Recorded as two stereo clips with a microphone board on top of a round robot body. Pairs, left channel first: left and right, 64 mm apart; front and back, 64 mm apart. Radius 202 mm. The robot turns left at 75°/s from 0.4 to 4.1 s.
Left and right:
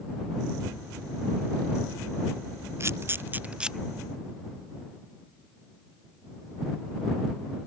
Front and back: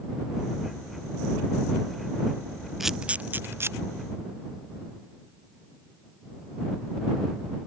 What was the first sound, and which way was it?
A camera shutter, 95° right.